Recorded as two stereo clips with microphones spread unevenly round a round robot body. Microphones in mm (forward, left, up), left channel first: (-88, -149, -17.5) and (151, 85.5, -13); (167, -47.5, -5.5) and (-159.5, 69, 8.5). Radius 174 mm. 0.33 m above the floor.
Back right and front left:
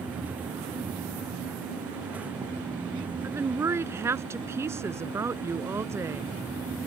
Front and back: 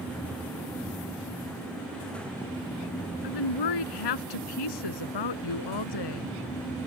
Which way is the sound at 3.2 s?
40° right.